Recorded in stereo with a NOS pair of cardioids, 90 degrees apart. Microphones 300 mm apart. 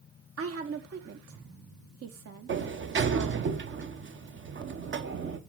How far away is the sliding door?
About 1.2 m.